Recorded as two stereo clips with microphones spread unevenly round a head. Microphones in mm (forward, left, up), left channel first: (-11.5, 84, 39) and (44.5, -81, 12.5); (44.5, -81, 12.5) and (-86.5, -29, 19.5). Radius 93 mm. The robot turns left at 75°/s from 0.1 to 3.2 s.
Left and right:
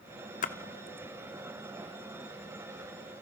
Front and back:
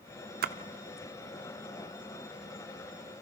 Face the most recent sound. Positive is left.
turn(degrees=-50)